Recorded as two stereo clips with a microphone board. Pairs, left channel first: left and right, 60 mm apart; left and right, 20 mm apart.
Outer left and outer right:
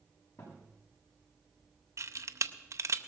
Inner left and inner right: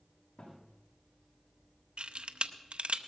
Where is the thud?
80° left, 7.5 m.